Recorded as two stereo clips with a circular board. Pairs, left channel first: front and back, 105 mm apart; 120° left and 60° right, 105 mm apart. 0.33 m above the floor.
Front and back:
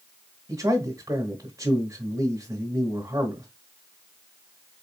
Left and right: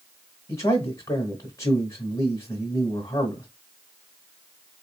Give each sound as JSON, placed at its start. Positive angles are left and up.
{"t": 0.5, "sound": "a man speaking", "azimuth_deg": 150, "distance_m": 1.1}